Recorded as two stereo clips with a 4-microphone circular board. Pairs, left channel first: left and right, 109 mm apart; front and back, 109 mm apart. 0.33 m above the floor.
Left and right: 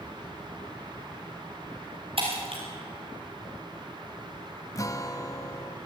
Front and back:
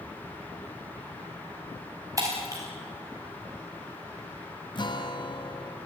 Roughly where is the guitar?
Ahead left.